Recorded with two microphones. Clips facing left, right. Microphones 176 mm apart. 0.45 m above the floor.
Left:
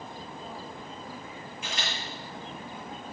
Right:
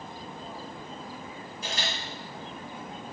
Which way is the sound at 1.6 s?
40° right (ahead or behind).